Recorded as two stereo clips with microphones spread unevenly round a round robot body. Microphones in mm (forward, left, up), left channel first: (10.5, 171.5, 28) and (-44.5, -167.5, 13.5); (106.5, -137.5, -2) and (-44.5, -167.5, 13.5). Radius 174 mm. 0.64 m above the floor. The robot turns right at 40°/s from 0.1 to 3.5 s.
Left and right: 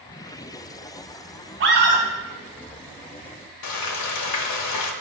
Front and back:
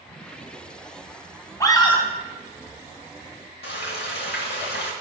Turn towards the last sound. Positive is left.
turn(degrees=40)